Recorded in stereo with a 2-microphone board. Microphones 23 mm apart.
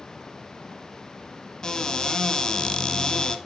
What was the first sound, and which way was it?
A cupboard door, 30° left (ahead or behind).